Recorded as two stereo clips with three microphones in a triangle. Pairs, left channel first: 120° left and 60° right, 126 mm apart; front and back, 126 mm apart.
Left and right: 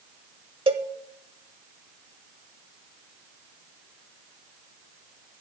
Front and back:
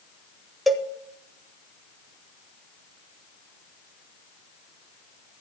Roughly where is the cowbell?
Right.